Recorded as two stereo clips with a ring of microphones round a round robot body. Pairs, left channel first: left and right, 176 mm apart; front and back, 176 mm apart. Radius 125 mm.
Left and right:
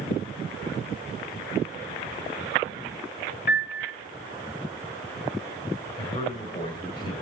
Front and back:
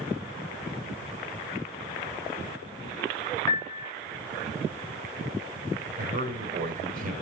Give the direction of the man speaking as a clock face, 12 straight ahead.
7 o'clock.